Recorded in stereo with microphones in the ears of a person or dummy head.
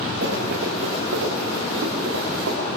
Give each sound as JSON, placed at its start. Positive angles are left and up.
{"t": 0.2, "sound": "running footsteps", "side_deg": -80, "distance_m": 9.0}